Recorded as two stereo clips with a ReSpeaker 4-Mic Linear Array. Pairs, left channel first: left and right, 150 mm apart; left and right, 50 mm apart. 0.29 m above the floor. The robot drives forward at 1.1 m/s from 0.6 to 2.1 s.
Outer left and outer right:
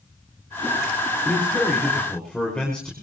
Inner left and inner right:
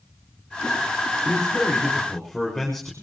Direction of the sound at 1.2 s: 5° left (ahead or behind).